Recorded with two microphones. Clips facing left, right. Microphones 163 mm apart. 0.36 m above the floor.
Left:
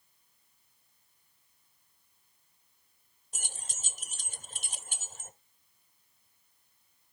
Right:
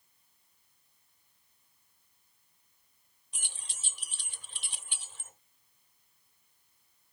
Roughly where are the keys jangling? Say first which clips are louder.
Left 5 dB; left.